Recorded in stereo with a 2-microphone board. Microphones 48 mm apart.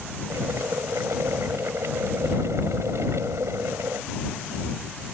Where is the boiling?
70° right (ahead or behind).